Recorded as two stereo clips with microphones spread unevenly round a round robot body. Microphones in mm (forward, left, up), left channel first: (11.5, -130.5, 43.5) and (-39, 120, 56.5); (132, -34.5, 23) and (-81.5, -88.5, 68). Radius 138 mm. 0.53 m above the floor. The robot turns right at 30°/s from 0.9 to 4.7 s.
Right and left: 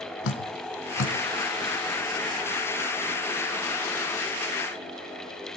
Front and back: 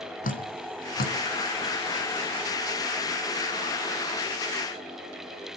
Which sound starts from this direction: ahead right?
Dripping, at 0.2 s.